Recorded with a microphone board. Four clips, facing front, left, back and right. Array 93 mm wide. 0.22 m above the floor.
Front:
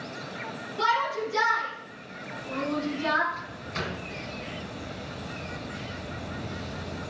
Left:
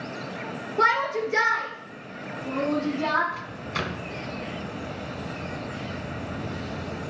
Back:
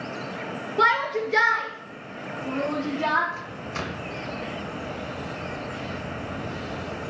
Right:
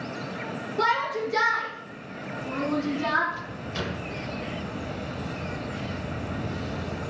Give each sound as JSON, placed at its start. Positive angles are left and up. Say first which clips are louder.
{"t": 0.8, "sound": "a shout", "louder": "left 3 dB, back 4 dB", "azimuth_deg": 155, "distance_m": 2.5}
{"t": 3.3, "sound": "a microwave", "louder": "left 2 dB, back 2 dB", "azimuth_deg": 105, "distance_m": 1.4}